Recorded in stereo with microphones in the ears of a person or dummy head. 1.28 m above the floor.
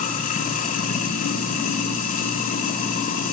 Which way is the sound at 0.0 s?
50° left (ahead or behind).